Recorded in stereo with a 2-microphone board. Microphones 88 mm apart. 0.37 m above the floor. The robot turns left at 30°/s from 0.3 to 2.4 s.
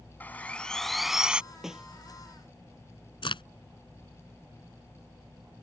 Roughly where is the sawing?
Ahead.